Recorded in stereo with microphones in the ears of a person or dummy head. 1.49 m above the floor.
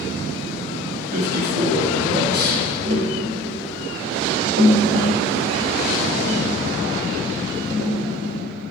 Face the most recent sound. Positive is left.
turn(degrees=-45)  # may be behind; listen again after turning